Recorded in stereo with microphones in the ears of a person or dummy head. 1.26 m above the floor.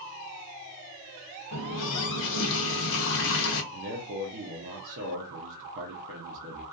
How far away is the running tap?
About 0.6 m.